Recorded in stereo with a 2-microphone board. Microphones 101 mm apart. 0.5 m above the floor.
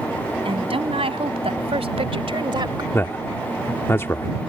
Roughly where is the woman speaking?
Right.